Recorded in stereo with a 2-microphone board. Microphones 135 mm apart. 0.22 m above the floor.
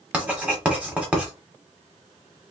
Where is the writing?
10° right (ahead or behind), 1.4 m.